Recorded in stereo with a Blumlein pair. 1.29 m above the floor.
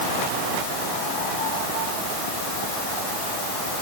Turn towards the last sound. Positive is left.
No sound to turn to.